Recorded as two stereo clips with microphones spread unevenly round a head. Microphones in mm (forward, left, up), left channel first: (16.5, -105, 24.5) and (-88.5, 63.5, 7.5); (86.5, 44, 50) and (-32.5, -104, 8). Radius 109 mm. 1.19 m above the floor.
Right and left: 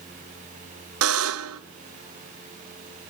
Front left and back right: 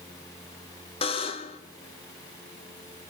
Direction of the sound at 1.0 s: 110° left.